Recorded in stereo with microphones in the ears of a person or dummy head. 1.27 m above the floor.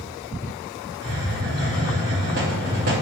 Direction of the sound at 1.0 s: 50° right (ahead or behind).